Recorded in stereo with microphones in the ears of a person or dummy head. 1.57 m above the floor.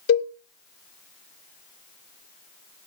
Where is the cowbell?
85° left, 1.5 m.